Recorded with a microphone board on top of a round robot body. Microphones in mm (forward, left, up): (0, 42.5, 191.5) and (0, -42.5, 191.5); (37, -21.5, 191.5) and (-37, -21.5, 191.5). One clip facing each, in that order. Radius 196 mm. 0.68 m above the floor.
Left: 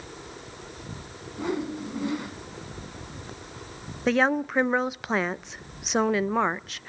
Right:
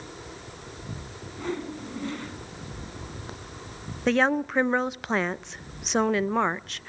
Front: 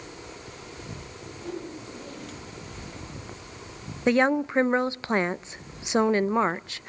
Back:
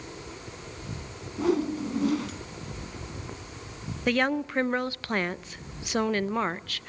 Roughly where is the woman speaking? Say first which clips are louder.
Even, front 4 dB; ahead.